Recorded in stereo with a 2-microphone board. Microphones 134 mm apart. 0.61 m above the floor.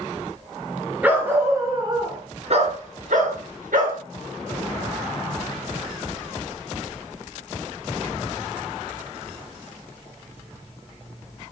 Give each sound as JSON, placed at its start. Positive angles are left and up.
{"t": 1.0, "sound": "a dog barking", "side_deg": -10, "distance_m": 3.0}